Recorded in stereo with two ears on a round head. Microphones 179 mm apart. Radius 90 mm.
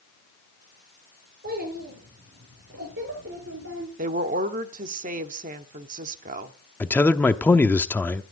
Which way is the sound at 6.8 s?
10° left (ahead or behind).